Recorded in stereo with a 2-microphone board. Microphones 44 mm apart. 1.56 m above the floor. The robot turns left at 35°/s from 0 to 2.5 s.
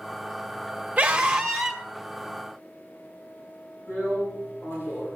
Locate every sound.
1.0 s a scream: 30° right (ahead or behind), 1.8 m; by 1.8 s centre (ahead or behind), 1.8 m
3.9 s a drill: 60° left (ahead or behind), 8 m